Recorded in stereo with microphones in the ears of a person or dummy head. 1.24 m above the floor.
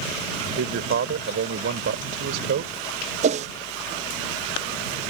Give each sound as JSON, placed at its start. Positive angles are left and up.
{"t": 0.4, "sound": "a man speaking", "side_deg": -65}
{"t": 3.2, "sound": "a whoosh", "side_deg": -30}